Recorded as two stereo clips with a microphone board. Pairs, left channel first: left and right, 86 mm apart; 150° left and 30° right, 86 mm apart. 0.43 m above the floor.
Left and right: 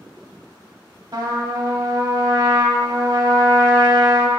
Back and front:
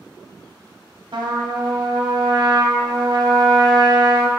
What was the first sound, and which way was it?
A trumpet, 55° right.